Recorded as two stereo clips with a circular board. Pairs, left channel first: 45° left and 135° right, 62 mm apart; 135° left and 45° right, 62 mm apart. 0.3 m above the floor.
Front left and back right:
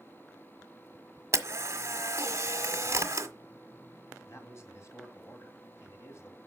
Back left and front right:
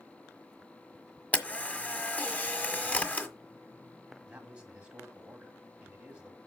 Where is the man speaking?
20° left, 2 m.